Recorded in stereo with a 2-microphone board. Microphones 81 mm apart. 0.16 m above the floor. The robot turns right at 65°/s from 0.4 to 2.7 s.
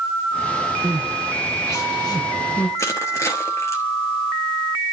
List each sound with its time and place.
0.8 s crying: 15° right (ahead or behind), 4 m; by 2.7 s 65° left (ahead or behind), 4 m
2.8 s crushing: 35° left (ahead or behind), 3.5 m